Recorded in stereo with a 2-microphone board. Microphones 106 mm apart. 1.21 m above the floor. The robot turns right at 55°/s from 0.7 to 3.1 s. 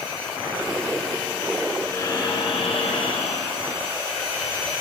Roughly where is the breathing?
Ahead.